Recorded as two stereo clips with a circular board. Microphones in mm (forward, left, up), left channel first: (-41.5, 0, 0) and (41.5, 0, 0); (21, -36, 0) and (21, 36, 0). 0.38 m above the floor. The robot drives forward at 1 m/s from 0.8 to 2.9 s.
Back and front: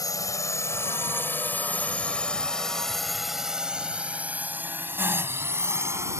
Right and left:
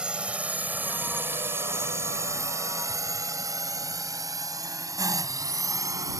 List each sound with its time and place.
0.0 s a drone: 160° left; by 6.2 s 55° left